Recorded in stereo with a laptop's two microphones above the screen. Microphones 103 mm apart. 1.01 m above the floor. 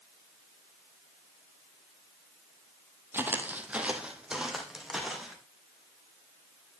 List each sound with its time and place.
3.1 s footsteps: 20° right (ahead or behind), 1.2 m; by 5.4 s centre (ahead or behind), 2.5 m